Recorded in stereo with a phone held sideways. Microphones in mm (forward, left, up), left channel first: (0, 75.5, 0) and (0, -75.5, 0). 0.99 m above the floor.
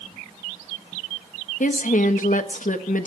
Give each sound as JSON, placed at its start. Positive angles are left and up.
{"t": 1.6, "sound": "a woman speaking", "side_deg": 65, "distance_m": 1.2}